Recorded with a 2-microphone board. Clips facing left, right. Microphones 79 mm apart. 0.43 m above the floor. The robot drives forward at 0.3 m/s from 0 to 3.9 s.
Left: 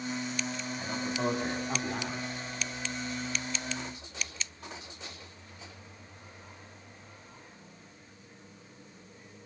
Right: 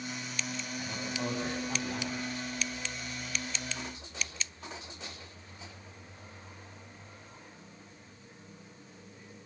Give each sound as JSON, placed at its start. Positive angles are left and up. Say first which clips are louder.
{"t": 0.8, "sound": "a man speaking", "louder": "left 5 dB", "side_deg": 15, "distance_m": 3.0}